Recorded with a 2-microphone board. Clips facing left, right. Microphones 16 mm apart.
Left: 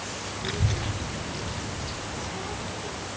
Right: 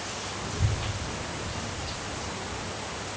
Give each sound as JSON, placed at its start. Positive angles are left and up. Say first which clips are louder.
{"t": 0.4, "sound": "a child speaking", "louder": "left 5 dB", "side_deg": 55, "distance_m": 2.0}